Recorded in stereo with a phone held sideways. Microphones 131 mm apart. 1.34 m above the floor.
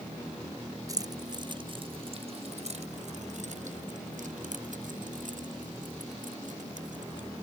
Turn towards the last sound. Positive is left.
turn(degrees=-75)  # may be behind; listen again after turning